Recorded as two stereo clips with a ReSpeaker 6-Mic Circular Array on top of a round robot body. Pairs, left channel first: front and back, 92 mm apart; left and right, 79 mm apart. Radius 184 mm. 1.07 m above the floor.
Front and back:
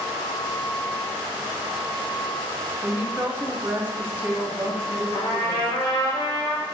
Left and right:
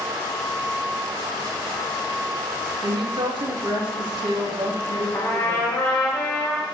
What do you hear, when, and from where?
2.8 s a woman speaking: 110° right, 1.8 m
5.1 s a trumpet: 30° left, 4.5 m